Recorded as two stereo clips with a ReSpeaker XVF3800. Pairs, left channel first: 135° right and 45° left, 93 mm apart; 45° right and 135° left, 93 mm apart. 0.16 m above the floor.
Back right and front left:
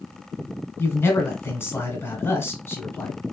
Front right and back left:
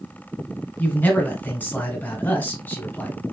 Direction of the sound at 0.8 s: 100° right.